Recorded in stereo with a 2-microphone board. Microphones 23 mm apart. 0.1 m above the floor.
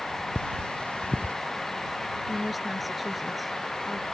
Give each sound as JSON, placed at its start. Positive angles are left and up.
{"t": 0.3, "sound": "cutlery clinking", "side_deg": 80}
{"t": 2.3, "sound": "a woman speaking", "side_deg": 0}